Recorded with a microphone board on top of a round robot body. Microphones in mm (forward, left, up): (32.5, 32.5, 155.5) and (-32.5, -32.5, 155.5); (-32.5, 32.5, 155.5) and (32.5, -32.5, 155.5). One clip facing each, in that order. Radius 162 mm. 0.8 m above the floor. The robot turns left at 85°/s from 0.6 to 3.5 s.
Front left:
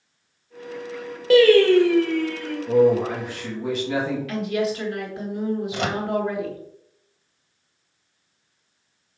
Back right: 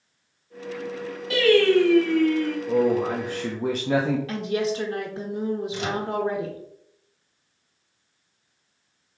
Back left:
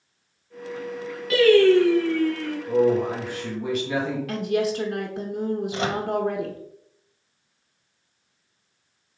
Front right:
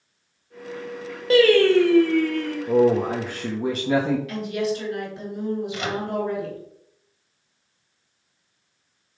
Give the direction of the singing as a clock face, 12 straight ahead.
12 o'clock.